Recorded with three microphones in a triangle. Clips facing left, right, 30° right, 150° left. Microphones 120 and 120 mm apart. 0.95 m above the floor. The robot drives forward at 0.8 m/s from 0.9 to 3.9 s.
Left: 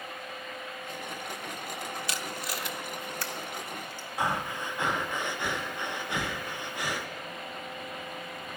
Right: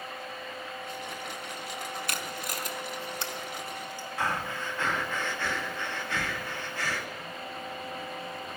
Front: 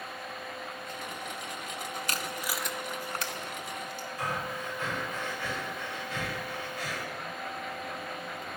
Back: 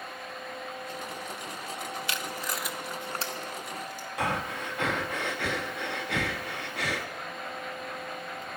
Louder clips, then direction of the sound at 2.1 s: Even, even; 65° right.